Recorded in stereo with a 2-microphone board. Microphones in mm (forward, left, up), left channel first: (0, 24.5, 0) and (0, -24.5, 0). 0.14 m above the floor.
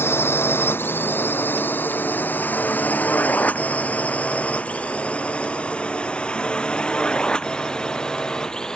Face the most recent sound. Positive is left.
turn(degrees=15)  # may be behind; listen again after turning